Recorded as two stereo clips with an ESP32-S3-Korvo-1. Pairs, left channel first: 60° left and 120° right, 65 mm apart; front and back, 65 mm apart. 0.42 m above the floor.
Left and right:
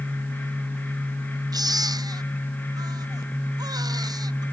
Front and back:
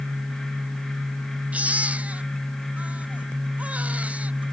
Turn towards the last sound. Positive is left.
turn(degrees=-110)